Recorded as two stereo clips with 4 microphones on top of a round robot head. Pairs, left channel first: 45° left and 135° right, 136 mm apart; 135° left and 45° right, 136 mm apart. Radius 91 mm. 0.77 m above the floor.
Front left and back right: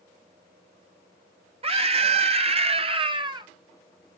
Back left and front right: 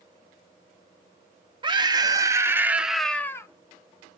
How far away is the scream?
About 1.2 m.